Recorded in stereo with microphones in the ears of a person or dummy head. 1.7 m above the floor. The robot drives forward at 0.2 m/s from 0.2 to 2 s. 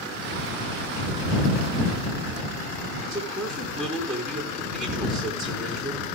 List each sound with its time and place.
3.0 s a man speaking: centre (ahead or behind), 5.5 m